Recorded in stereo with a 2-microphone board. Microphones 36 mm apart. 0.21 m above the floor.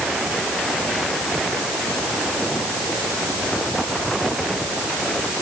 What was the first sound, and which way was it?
Only background noise.